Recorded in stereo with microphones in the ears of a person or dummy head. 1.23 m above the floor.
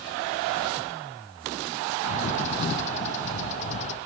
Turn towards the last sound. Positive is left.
turn(degrees=40)  # may be behind; listen again after turning